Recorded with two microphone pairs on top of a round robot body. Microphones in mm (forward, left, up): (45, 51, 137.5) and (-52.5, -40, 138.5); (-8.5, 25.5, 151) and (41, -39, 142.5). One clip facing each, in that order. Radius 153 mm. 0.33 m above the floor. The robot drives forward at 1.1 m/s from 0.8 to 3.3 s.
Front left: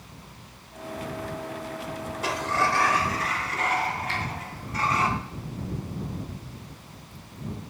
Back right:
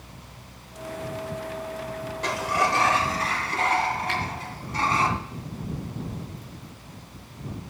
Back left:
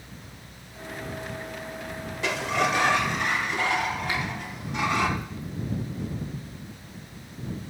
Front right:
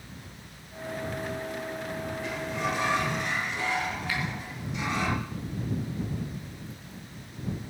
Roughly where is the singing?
I don't hear singing.